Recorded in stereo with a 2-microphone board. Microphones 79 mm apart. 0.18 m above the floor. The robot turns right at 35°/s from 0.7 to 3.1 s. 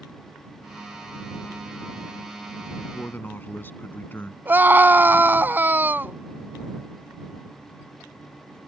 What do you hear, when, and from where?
2.8 s a man speaking: 30° left (ahead or behind); by 4.3 s 25° left (ahead or behind)
4.5 s a scream: 25° right (ahead or behind)